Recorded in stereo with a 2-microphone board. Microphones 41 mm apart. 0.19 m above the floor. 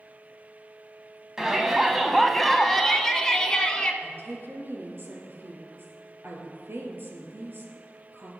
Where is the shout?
15° right (ahead or behind), 1.3 m; by 3.9 s 20° left (ahead or behind), 1.8 m.